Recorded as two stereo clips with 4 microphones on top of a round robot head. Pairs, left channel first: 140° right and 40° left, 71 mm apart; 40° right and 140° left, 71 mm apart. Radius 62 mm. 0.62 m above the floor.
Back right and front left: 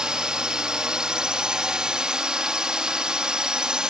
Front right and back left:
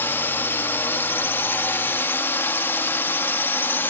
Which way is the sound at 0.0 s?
30° right.